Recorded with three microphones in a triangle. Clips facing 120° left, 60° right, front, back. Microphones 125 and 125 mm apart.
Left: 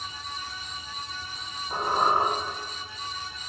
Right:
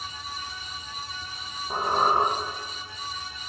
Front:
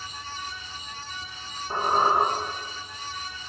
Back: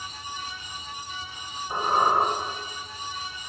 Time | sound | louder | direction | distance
1.7 | a squeak | right 1 dB, even | 55° right | 4 m